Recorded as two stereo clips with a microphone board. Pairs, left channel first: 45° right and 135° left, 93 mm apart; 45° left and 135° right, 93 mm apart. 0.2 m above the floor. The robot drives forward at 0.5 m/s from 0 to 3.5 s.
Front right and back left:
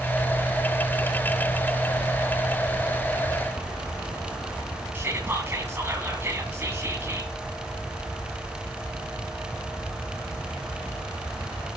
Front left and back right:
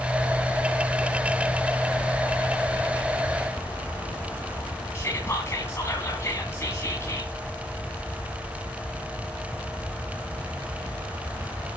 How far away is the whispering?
About 2 m.